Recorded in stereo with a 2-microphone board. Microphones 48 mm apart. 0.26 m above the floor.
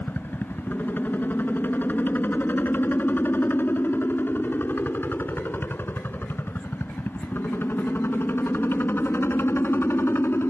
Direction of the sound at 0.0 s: 40° left (ahead or behind).